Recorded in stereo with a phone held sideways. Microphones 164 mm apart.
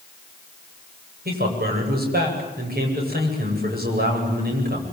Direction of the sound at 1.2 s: 75° right (ahead or behind).